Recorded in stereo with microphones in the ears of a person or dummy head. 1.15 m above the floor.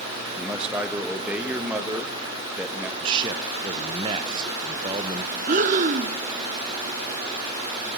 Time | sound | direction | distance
0.4 | a man speaking | centre (ahead or behind) | 1.2 m
3.0 | a man speaking | 25° right (ahead or behind) | 0.6 m
5.5 | breathing | 40° right (ahead or behind) | 0.5 m